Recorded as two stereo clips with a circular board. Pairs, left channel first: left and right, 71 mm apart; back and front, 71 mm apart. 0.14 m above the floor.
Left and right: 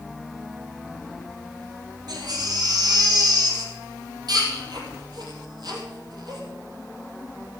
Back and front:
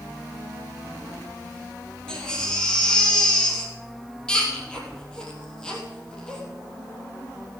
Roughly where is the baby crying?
Right.